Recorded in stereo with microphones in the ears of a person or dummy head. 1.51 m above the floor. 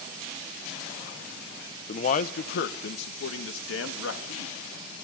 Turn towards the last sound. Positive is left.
turn(degrees=85)